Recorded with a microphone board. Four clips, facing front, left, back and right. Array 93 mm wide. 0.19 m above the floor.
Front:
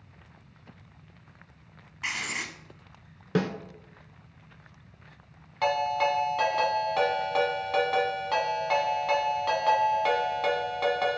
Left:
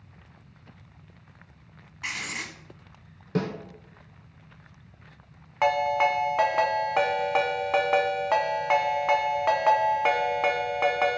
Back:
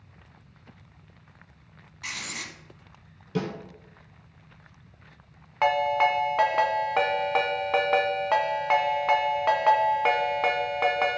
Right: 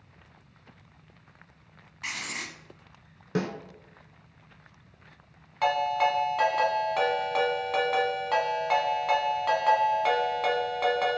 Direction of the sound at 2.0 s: 25° left.